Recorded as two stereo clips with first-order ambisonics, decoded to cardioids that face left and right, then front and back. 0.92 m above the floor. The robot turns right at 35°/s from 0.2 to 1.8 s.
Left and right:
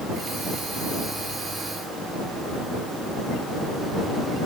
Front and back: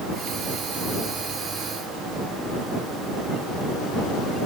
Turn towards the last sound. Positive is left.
No sound to turn to.